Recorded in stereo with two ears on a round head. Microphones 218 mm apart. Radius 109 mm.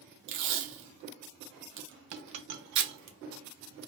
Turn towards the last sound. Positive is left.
turn(degrees=-65)  # may be behind; listen again after turning